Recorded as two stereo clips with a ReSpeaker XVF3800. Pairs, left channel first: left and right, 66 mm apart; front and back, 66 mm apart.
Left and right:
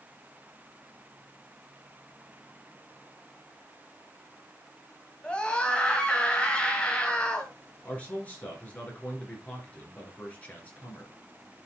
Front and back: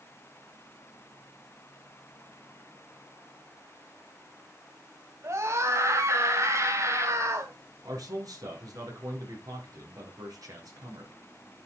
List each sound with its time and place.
5.2 s a scream: 160° left, 1.4 m
7.8 s a man speaking: 160° left, 4 m